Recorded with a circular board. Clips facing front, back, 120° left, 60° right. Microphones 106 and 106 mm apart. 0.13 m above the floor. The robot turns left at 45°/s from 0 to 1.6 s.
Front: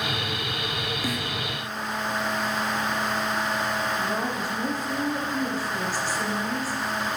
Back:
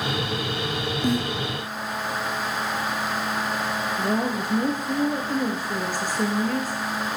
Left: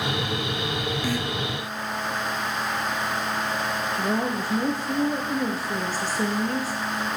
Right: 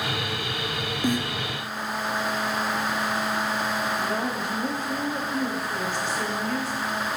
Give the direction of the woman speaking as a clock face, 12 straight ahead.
7 o'clock.